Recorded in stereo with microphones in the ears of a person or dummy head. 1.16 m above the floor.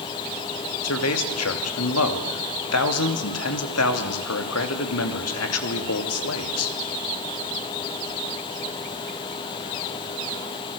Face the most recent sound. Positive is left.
turn(degrees=75)  # may be behind; listen again after turning